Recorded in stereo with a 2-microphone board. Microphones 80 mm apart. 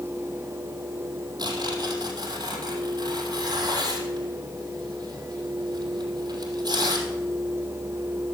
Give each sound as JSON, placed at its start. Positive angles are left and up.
{"t": 1.4, "sound": "tearing paper", "side_deg": -60, "distance_m": 3.0}